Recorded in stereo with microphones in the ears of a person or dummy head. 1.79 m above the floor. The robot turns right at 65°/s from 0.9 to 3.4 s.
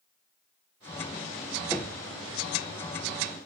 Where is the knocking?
5° left (ahead or behind), 1.0 m; by 2.1 s 10° right (ahead or behind), 1.0 m.